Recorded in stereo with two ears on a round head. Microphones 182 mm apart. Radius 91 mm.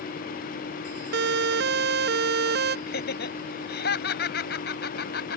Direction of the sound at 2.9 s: 50° left (ahead or behind).